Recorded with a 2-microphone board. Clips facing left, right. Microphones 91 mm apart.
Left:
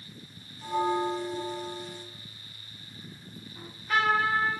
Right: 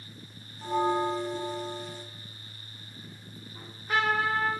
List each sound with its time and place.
0.6 s a bell: 40° right (ahead or behind), 1.1 m
3.5 s a trumpet: 30° right (ahead or behind), 1.3 m